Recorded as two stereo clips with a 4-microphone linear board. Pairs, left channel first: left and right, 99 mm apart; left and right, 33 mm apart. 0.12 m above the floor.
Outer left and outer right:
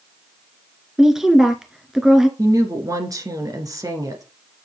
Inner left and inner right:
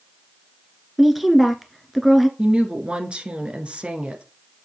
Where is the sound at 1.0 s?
5° right (ahead or behind), 1.3 m.